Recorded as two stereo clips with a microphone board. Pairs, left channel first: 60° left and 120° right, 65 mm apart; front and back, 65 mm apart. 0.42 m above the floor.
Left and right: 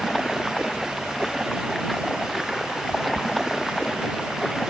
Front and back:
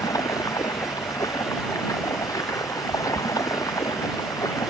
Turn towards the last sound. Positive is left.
turn(degrees=-30)